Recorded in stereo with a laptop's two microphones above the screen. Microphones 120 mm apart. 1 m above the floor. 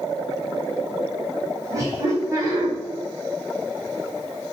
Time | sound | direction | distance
1.7 | laughter | 25° right (ahead or behind) | 1.6 m